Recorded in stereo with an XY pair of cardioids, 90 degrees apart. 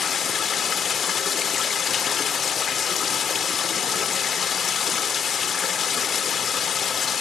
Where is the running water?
55° left, 0.7 m.